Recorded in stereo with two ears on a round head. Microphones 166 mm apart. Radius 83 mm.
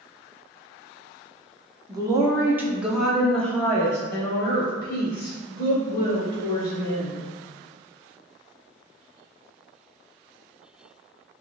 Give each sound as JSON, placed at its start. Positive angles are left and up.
{"t": 1.9, "sound": "a woman speaking", "side_deg": -20, "distance_m": 0.8}